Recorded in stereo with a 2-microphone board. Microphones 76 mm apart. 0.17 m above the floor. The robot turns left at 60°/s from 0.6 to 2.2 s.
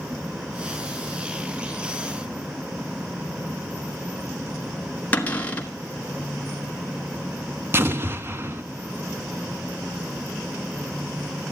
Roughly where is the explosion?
Right.